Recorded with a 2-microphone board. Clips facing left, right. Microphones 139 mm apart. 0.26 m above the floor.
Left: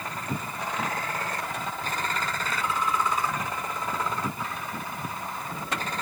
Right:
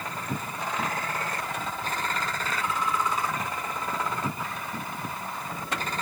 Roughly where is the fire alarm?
No fire alarm in this recording.